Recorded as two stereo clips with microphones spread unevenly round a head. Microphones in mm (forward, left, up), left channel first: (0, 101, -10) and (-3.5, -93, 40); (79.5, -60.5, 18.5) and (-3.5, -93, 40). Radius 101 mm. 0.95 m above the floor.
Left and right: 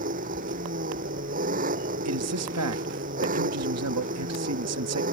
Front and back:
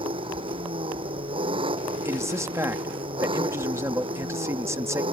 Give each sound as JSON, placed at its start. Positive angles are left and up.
{"t": 0.0, "sound": "an engine running", "azimuth_deg": -140}
{"t": 2.0, "sound": "a man speaking", "azimuth_deg": -95}